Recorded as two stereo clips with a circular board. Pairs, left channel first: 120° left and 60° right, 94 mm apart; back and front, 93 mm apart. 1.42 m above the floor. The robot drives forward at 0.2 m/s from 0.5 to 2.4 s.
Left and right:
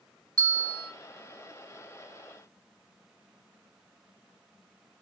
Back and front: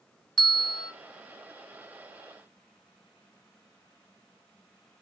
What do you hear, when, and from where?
0.4 s a bell: 85° right, 1.8 m; by 0.9 s 90° right, 1.8 m